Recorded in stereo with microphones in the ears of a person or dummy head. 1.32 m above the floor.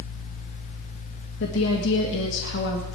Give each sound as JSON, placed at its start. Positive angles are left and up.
{"t": 1.4, "sound": "a woman speaking", "side_deg": 75, "distance_m": 1.5}